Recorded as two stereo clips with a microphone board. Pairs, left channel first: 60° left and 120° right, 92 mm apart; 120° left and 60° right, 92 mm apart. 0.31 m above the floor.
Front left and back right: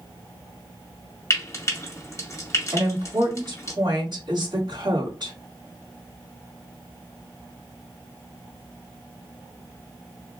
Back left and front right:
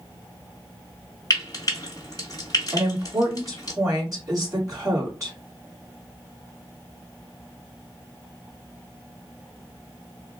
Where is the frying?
95° left, 1.9 m.